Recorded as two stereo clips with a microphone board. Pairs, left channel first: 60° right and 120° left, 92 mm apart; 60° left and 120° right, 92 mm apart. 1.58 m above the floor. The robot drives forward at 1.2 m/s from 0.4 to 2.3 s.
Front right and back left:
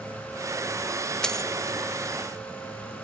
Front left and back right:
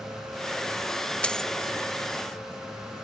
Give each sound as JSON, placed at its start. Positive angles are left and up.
{"t": 1.2, "sound": "a dropped coin", "azimuth_deg": 5}